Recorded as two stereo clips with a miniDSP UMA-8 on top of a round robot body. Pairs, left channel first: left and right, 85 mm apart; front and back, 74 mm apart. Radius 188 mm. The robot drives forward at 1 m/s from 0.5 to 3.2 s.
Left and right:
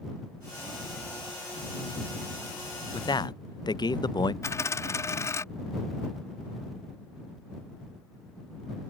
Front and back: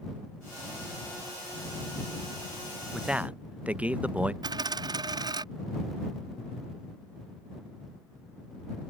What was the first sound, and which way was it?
A man speaking, 90° left.